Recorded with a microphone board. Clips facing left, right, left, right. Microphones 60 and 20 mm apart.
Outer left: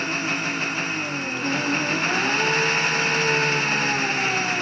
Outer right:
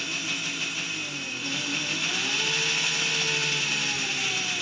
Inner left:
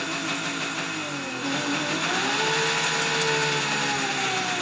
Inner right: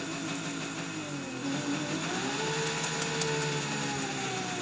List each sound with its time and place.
0.0 s an engine running: 45° left (ahead or behind)